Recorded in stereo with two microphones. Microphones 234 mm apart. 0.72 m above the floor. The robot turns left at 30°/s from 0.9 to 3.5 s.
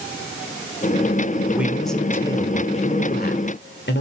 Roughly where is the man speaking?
Behind.